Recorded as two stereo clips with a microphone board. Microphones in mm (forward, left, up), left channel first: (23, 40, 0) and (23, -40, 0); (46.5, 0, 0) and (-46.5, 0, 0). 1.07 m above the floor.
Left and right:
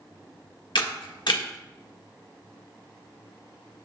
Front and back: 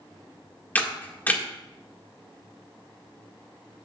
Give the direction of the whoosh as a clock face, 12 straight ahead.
No whoosh in this recording.